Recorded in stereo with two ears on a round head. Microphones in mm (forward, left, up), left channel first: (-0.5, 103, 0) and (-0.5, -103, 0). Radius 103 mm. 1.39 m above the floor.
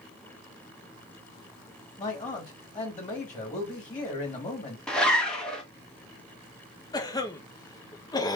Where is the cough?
15° left (ahead or behind), 0.9 m.